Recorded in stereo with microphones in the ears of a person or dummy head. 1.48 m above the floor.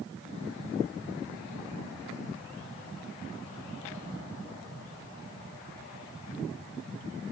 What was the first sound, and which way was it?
Only background noise.